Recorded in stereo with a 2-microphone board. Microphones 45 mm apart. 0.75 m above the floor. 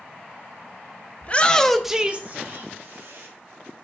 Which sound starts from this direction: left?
A shout, at 1.2 s.